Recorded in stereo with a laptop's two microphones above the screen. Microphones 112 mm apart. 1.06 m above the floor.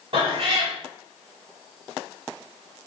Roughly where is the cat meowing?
Right.